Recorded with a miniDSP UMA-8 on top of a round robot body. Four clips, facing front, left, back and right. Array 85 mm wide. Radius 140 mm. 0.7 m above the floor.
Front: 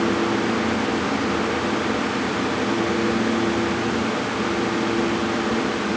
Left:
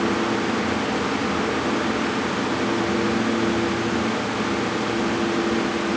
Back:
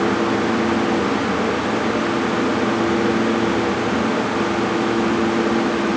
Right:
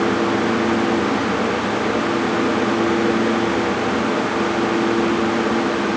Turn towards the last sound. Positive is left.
No sound to turn to.